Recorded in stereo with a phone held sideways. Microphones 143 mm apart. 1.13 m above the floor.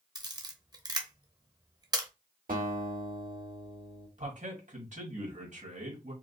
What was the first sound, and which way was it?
A camera shutter, 25° right (ahead or behind).